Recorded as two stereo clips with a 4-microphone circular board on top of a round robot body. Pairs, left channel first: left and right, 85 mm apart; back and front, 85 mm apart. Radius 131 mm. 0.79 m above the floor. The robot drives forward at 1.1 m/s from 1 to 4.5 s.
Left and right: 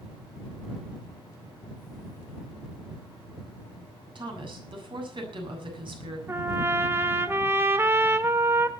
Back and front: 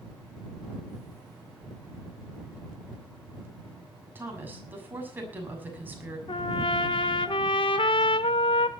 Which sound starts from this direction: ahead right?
A woman speaking, at 4.2 s.